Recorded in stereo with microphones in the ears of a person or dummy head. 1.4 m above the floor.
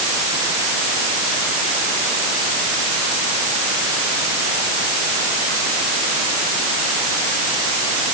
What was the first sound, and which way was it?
Only background noise.